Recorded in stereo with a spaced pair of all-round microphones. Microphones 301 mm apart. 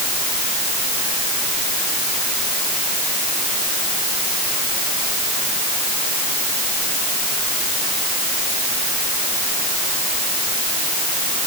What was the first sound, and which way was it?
Only background noise.